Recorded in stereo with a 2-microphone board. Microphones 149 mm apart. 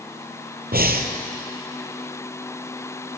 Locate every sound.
0.7 s breathing: 80° right, 1.1 m